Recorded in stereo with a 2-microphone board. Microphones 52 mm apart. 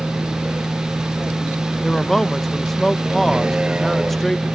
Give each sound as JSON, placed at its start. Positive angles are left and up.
{"t": 0.0, "sound": "a vehicle", "side_deg": -30}
{"t": 1.8, "sound": "a man speaking", "side_deg": 5}